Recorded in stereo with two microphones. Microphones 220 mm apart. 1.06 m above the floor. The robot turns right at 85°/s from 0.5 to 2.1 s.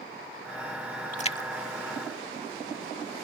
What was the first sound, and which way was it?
A splash, 40° left (ahead or behind).